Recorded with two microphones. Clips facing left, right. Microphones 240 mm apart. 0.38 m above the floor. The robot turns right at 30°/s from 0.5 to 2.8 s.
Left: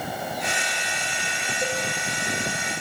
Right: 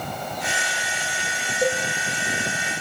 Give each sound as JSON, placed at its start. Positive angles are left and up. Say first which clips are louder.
{"t": 1.6, "sound": "a cowbell", "louder": "right 7 dB", "side_deg": -40, "distance_m": 4.5}